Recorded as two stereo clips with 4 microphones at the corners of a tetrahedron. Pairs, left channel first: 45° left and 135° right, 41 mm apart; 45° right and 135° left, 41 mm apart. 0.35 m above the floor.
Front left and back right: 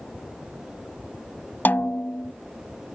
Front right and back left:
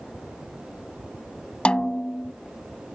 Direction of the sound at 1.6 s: 20° left.